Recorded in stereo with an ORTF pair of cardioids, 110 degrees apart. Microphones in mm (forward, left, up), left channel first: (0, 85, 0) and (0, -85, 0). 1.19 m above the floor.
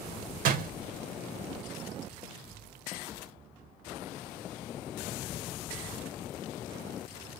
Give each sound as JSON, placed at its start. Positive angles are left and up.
{"t": 0.5, "sound": "a door slam", "azimuth_deg": -55, "distance_m": 0.7}